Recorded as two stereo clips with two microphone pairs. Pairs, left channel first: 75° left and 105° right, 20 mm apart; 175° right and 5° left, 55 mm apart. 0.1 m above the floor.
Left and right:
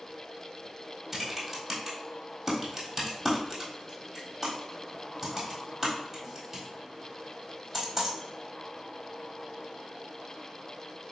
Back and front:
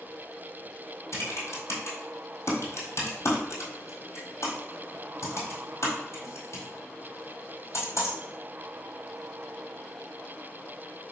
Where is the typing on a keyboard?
175° left, 1.3 m.